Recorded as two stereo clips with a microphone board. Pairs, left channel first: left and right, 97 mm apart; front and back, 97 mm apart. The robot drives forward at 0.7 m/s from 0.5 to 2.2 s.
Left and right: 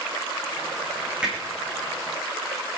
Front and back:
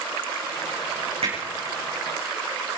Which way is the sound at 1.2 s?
170° right.